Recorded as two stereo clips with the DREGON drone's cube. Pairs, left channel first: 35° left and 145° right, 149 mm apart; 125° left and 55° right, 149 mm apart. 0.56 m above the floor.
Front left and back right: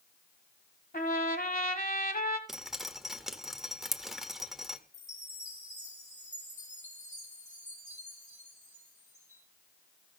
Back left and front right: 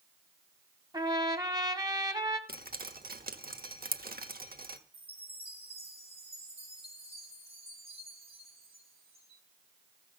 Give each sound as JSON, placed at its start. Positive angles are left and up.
{"t": 0.9, "sound": "a trumpet", "azimuth_deg": 10, "distance_m": 1.3}
{"t": 2.5, "sound": "dripping", "azimuth_deg": -60, "distance_m": 1.2}
{"t": 4.9, "sound": "a chime", "azimuth_deg": -5, "distance_m": 5.0}